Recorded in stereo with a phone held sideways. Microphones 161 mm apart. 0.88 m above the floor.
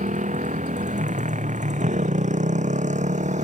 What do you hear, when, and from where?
0.0 s a motorcycle: 50° right (ahead or behind)